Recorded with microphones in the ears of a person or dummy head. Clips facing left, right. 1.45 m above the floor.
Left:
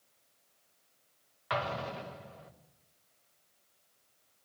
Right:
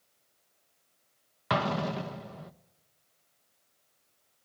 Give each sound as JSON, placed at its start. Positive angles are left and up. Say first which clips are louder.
{"t": 1.5, "sound": "an explosion", "louder": "right 6 dB", "side_deg": -65, "distance_m": 1.0}